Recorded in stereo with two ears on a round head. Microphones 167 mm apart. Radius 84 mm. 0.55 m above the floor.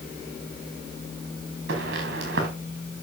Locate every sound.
1.7 s footsteps: 55° right (ahead or behind), 4 m